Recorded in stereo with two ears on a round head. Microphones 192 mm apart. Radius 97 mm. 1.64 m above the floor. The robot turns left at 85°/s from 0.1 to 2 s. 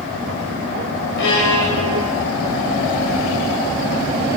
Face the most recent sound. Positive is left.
turn(degrees=50)